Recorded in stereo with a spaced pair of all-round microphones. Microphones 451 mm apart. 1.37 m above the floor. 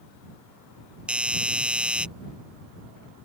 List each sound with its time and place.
1.1 s a doorbell: 5° right (ahead or behind)